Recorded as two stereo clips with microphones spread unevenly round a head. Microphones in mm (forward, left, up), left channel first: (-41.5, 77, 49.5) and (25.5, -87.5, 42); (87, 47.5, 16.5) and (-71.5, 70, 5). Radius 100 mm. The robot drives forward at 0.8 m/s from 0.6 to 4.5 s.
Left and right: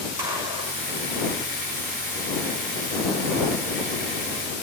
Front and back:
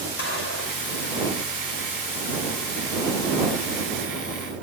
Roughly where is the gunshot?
Ahead.